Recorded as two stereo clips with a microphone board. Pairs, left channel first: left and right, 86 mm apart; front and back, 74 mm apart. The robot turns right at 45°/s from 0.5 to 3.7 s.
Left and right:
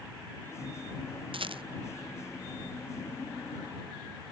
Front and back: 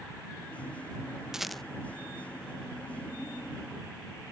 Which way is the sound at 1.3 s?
95° right.